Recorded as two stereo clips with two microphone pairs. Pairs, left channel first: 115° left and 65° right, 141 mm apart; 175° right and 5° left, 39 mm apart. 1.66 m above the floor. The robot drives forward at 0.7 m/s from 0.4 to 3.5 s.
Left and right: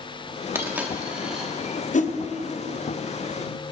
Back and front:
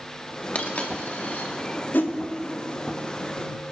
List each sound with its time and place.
0.6 s a dropped coin: 135° right, 1.6 m; by 1.5 s 150° right, 2 m
1.9 s a whoosh: 145° left, 0.9 m; by 2.2 s 150° left, 1.0 m